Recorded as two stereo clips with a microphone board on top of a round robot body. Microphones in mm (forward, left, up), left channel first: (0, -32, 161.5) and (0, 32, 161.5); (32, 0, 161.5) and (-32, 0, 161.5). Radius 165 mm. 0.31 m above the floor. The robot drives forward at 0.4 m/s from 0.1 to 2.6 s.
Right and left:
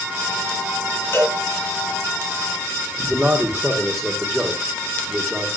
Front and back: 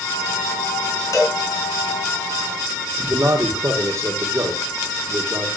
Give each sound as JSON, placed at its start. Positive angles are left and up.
{"t": 1.1, "sound": "a cowbell", "azimuth_deg": -40, "distance_m": 4.0}
{"t": 3.1, "sound": "a man speaking", "azimuth_deg": 175, "distance_m": 1.9}